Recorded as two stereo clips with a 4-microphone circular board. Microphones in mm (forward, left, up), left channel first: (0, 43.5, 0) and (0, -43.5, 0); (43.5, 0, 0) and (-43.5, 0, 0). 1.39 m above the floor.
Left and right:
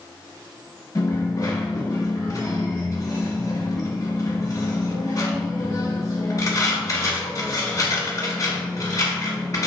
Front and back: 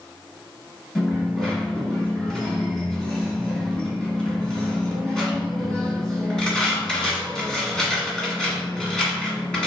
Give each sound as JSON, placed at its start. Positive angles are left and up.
{"t": 0.9, "sound": "a dropped coin", "azimuth_deg": 80, "distance_m": 1.5}